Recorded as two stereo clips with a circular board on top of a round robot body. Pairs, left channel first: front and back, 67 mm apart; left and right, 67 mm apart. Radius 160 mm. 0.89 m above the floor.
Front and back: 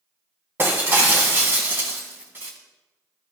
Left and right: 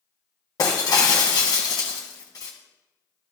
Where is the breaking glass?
120° left, 1.5 m.